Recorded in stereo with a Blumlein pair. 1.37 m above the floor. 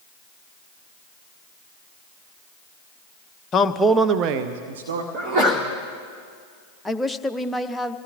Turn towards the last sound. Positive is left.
turn(degrees=5)